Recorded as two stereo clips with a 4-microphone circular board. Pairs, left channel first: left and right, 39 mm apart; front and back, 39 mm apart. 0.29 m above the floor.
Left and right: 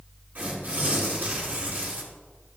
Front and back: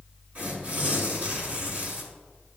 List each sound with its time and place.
0.3 s tearing paper: 135° right, 1.9 m